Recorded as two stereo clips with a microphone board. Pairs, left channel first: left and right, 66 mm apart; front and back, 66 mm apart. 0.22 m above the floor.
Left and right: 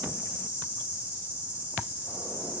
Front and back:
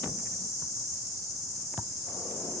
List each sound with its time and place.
0.0 s an insect: 150° right, 5.5 m